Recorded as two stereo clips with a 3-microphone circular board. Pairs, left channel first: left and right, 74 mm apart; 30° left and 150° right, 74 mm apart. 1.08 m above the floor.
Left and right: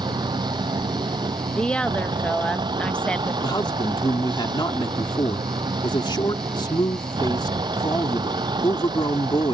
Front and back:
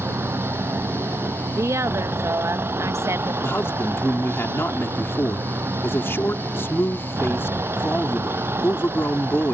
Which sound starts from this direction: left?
A man speaking, at 3.4 s.